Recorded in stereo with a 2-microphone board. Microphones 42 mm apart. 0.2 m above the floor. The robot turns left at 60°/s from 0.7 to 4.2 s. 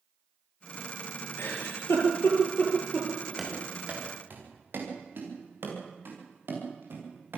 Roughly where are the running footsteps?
Centre.